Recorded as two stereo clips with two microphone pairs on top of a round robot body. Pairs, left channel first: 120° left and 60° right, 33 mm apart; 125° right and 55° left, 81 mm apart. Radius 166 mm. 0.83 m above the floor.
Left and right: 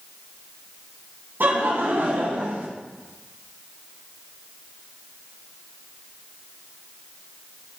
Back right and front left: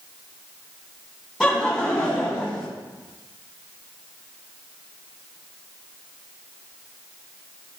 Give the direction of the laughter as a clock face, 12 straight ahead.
1 o'clock.